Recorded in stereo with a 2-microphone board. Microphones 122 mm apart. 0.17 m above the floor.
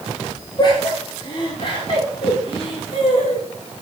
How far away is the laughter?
About 5.5 m.